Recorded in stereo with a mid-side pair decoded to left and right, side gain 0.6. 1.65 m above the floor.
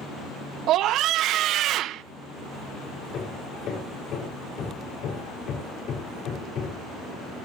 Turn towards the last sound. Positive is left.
turn(degrees=50)